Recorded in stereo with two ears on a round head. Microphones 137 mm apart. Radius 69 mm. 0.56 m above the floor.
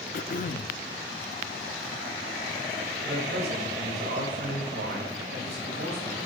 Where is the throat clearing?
60° left (ahead or behind), 0.5 m.